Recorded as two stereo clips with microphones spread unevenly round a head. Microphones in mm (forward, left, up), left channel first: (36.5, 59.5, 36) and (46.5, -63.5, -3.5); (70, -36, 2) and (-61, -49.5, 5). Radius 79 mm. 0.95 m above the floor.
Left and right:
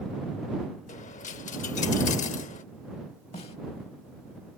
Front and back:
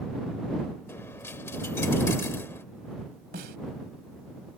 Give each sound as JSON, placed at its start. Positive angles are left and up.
{"t": 0.9, "sound": "a dropped coin", "azimuth_deg": 80}
{"t": 3.3, "sound": "a snare drum", "azimuth_deg": 150}